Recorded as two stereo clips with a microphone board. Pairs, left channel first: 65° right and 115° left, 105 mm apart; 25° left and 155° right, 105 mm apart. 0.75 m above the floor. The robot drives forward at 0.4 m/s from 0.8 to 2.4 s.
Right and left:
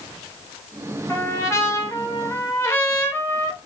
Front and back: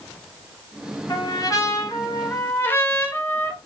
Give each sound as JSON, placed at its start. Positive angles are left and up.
{"t": 1.1, "sound": "a trumpet", "azimuth_deg": -10, "distance_m": 1.1}